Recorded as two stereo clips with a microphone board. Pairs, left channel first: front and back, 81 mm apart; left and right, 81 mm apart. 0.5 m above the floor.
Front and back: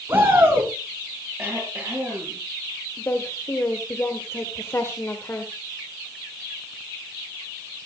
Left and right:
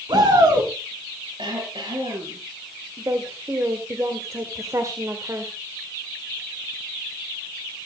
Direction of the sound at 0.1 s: 115° right.